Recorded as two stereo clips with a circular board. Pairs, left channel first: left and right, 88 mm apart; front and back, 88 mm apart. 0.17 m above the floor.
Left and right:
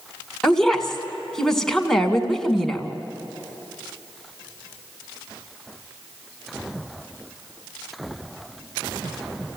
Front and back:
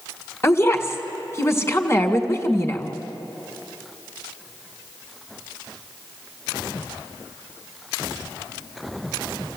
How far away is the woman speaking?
About 1.8 m.